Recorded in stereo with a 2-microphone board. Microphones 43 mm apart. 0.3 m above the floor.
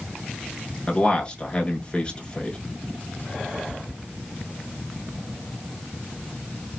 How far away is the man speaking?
About 1.5 m.